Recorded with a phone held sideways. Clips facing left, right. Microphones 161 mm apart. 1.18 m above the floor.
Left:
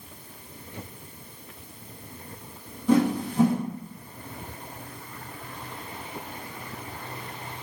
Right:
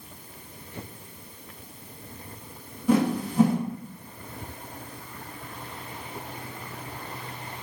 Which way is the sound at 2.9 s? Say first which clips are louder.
Left 1 dB; 10° right (ahead or behind).